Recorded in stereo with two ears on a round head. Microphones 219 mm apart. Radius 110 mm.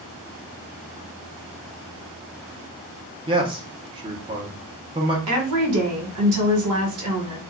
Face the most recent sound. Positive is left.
turn(degrees=-65)  # may be behind; listen again after turning